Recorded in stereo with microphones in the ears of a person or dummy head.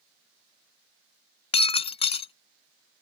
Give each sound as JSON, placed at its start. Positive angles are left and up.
{"t": 1.5, "sound": "breaking glass", "side_deg": 25}